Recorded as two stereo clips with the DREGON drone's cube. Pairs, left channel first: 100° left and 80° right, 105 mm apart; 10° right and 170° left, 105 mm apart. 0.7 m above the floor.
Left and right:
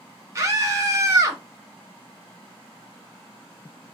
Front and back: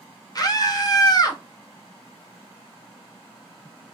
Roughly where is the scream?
Ahead right.